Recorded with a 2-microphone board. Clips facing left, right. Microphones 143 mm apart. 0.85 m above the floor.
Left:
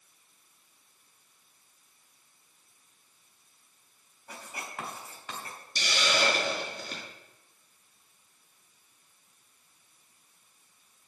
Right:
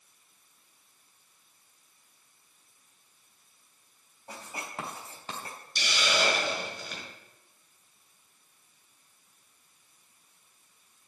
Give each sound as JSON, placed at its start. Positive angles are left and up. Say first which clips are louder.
{"t": 4.3, "sound": "writing", "louder": "right 1 dB", "side_deg": -30, "distance_m": 4.0}
{"t": 5.8, "sound": "a hiss", "louder": "even", "side_deg": 45, "distance_m": 5.0}